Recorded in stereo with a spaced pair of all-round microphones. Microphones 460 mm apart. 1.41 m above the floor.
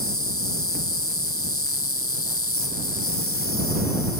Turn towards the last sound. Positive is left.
turn(degrees=30)  # may be behind; listen again after turning